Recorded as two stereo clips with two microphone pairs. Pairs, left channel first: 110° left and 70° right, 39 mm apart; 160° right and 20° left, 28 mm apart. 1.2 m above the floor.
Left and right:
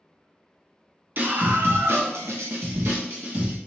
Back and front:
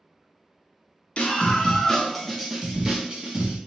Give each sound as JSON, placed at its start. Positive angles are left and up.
{"t": 1.2, "sound": "a scream", "azimuth_deg": -115, "distance_m": 1.3}